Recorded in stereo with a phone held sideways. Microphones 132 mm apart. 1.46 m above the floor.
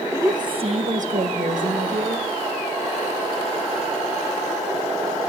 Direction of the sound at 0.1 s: 20° right (ahead or behind).